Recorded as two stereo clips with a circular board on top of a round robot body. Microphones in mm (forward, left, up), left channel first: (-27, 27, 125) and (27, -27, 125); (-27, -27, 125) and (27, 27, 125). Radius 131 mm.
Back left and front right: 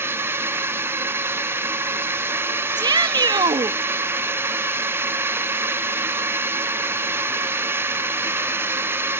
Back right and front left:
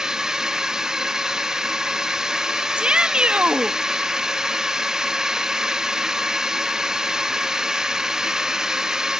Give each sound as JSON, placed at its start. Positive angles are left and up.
{"t": 0.0, "sound": "a drone", "azimuth_deg": -30}
{"t": 2.8, "sound": "a shout", "azimuth_deg": -30}